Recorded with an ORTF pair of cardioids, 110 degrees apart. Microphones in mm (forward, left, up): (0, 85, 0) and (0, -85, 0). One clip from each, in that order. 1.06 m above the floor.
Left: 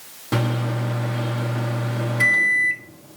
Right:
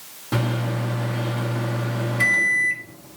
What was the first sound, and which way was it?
A microwave, 15° left.